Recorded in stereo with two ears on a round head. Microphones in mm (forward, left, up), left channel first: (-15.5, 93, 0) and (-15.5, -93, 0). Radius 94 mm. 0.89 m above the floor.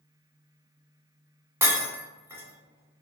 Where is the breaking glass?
15° right (ahead or behind), 1.1 m.